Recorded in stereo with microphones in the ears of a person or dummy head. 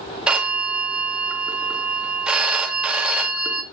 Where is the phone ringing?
5° right (ahead or behind), 1.2 m.